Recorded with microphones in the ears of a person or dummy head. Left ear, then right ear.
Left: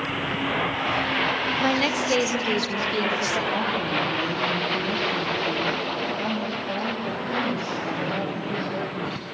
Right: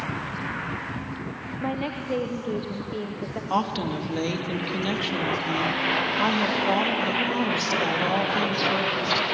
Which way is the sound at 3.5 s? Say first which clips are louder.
Left 2 dB; 50° right (ahead or behind).